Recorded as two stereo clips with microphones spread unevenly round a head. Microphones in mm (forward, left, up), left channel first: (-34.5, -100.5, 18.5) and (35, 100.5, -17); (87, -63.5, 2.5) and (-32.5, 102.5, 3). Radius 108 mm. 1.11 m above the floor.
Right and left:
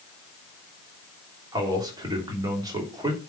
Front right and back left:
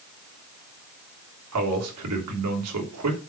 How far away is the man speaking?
About 3 m.